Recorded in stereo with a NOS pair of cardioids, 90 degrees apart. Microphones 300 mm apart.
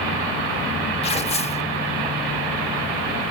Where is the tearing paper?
20° left, 1.0 m.